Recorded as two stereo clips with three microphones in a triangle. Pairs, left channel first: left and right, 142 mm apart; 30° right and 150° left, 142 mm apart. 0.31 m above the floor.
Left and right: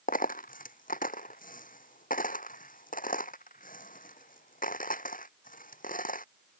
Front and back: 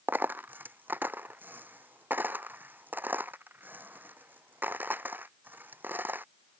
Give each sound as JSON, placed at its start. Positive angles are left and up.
{"t": 0.1, "sound": "a dropped coin", "azimuth_deg": 75}